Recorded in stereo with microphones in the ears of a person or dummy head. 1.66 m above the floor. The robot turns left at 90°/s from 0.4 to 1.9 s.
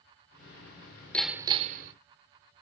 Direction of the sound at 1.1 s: 10° left.